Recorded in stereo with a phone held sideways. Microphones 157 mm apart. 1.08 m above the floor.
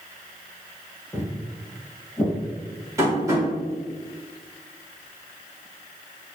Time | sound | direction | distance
1.1 | footsteps | 10° left (ahead or behind) | 1.8 m
3.0 | tapping | 20° right (ahead or behind) | 1.6 m